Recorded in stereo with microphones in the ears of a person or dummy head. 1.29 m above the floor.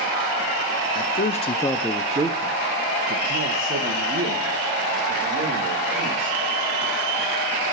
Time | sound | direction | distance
0.9 | a man speaking | 55° left (ahead or behind) | 0.6 m